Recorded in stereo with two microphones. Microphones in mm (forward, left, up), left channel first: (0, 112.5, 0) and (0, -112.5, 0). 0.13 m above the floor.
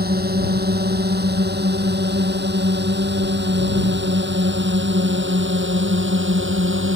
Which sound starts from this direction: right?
A drone, at 0.0 s.